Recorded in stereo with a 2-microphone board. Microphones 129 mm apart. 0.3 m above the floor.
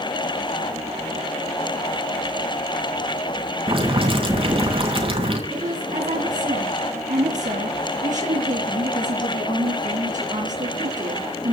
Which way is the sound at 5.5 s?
80° right.